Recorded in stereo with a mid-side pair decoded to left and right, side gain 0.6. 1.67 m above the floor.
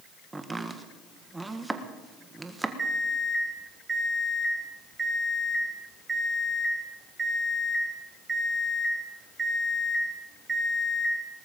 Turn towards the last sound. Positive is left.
turn(degrees=-20)